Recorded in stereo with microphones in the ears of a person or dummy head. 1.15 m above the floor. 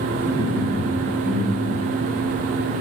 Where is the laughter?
5° right (ahead or behind), 1.2 m.